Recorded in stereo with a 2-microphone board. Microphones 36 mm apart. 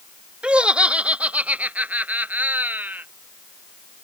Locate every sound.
0.4 s laughter: 30° right (ahead or behind); by 3.0 s 65° right (ahead or behind)